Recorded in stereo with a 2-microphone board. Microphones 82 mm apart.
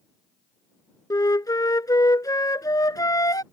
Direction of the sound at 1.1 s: 50° left (ahead or behind).